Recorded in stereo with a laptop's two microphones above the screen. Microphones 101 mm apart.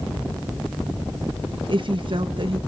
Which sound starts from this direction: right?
A woman speaking, at 1.7 s.